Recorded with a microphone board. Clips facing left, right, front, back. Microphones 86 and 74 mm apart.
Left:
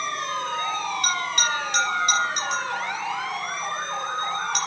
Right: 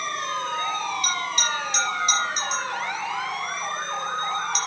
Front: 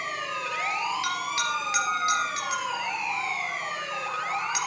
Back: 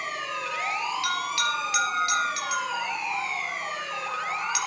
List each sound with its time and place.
1.0 s a bell: 65° left, 3.5 m